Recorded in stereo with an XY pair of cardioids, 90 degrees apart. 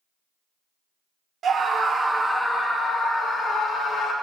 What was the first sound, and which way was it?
A scream, 60° right.